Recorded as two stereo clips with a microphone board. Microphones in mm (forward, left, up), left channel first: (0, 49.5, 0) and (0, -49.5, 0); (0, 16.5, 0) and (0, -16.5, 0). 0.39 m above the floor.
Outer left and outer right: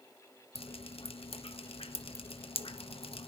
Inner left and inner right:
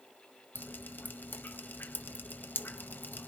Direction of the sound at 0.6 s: 75° left (ahead or behind).